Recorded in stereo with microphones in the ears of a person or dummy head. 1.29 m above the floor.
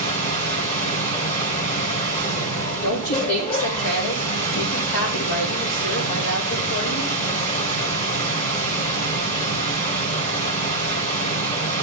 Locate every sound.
0.0 s a machine running: 30° left (ahead or behind), 2 m
2.8 s a woman speaking: 65° left (ahead or behind), 3.5 m